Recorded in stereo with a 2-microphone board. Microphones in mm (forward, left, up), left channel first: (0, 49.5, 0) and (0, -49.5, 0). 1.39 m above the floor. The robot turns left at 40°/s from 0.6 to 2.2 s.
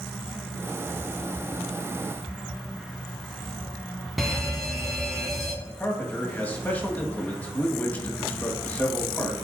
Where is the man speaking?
15° left (ahead or behind), 1.7 m.